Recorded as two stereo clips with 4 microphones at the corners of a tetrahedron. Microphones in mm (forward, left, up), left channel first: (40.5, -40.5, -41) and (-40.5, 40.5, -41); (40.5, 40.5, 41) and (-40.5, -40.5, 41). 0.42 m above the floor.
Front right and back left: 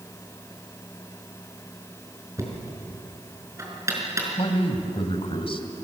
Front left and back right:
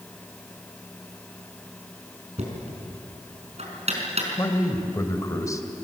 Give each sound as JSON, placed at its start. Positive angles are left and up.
{"t": 2.4, "sound": "knocking", "azimuth_deg": -160, "distance_m": 5.0}
{"t": 4.4, "sound": "a man speaking", "azimuth_deg": -15, "distance_m": 2.5}